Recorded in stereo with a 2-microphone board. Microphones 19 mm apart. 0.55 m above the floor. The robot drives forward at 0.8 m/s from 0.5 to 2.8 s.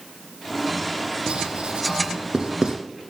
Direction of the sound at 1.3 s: 80° right.